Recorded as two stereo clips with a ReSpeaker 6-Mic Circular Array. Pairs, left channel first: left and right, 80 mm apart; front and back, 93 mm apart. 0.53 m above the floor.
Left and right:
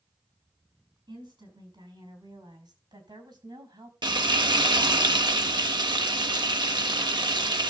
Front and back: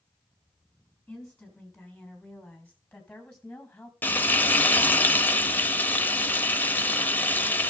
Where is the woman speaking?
80° right, 6 m; by 3.9 s 75° right, 3.5 m.